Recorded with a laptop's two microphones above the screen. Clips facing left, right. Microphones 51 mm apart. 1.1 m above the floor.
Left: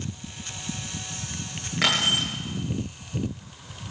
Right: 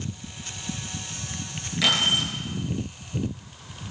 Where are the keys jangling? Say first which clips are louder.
Even; 35° left (ahead or behind), 10 m.